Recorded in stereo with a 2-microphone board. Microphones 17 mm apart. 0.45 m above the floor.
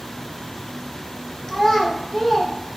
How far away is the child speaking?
About 0.8 m.